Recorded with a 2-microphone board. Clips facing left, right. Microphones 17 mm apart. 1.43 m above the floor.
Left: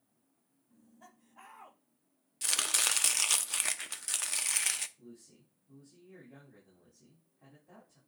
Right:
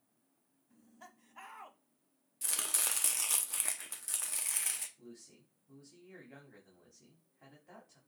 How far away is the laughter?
About 2 m.